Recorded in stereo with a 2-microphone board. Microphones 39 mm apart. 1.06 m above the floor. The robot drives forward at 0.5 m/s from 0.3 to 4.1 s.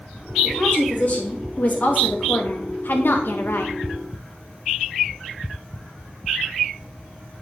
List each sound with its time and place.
0.4 s a woman speaking: 30° left (ahead or behind), 2 m; by 3.7 s 65° left (ahead or behind), 1.2 m